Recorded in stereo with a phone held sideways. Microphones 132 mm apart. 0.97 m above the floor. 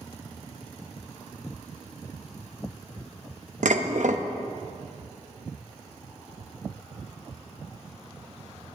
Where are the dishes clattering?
75° right (ahead or behind), 0.8 m.